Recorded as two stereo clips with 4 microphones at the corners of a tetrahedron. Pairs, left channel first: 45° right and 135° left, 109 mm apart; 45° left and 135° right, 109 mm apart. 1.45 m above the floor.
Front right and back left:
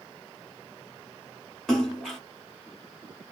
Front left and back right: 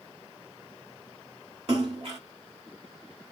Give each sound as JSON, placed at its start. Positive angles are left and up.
{"t": 1.7, "sound": "a splash", "azimuth_deg": -130, "distance_m": 2.5}